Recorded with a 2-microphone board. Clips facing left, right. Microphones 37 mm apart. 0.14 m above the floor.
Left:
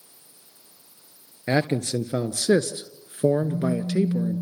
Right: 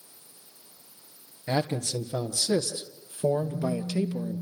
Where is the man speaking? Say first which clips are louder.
Left 5 dB; 45° left (ahead or behind), 2.5 m; by 4.4 s 35° left (ahead or behind), 2 m.